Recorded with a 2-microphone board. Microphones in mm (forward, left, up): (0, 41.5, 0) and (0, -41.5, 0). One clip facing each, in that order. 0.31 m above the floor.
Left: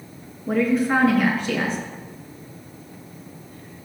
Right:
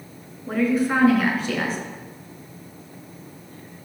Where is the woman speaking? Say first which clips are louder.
Left 1 dB; centre (ahead or behind), 3.5 m.